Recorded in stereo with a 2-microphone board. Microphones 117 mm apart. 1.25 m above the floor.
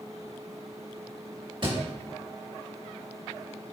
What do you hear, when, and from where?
1.6 s a thud: 45° right (ahead or behind), 2 m